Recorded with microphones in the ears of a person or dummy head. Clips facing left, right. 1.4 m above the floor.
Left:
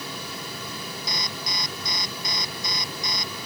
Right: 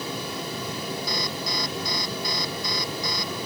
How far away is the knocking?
No knocking in this recording.